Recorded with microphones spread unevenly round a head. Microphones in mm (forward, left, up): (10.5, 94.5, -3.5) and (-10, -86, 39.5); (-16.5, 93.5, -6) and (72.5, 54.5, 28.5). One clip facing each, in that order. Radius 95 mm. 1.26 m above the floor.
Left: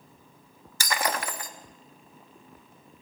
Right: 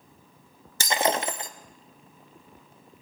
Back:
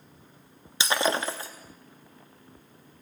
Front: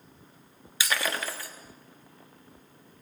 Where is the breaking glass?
120° right, 0.7 m.